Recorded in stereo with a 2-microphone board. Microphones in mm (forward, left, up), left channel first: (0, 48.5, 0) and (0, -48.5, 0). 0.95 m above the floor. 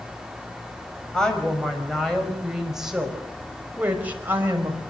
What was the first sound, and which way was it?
A woman speaking, 10° left (ahead or behind).